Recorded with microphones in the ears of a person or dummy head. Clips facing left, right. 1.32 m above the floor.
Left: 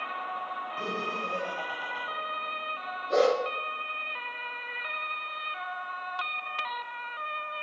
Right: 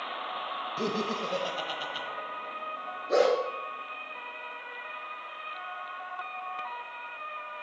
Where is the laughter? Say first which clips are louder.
Right 5 dB; 50° right (ahead or behind), 1.3 m.